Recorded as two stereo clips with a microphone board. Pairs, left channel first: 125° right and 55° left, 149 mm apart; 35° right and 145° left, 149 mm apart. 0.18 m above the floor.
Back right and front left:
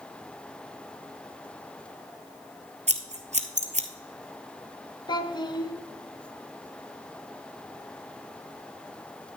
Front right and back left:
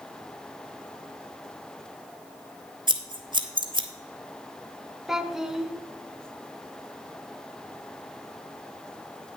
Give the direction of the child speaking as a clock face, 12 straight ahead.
4 o'clock.